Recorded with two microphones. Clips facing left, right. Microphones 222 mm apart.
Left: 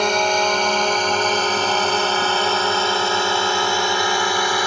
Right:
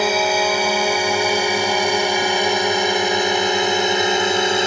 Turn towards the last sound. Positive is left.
turn(degrees=-25)  # may be behind; listen again after turning